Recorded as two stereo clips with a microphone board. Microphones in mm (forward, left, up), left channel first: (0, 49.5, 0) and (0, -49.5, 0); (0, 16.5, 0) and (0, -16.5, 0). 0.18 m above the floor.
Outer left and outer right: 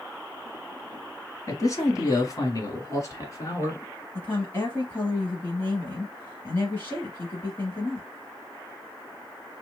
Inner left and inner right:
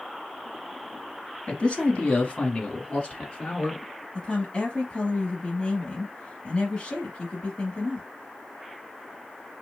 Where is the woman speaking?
25° left (ahead or behind), 1.1 m.